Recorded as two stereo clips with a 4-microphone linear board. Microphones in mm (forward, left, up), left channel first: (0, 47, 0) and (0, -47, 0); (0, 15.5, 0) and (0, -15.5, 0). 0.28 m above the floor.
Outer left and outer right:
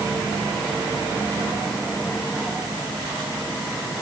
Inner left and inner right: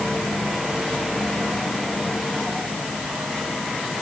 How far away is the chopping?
No chopping in this recording.